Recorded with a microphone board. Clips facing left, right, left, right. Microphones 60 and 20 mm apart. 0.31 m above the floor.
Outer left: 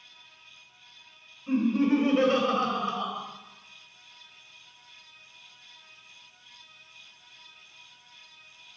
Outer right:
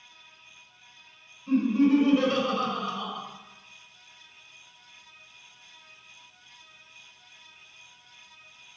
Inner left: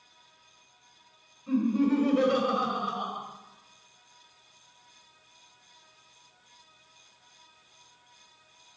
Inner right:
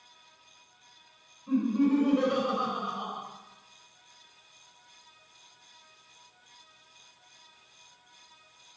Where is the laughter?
35° left (ahead or behind), 1.5 m.